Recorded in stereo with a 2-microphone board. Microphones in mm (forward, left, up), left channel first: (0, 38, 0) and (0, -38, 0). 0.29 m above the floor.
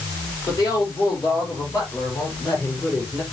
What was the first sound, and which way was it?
A woman speaking, 50° left (ahead or behind).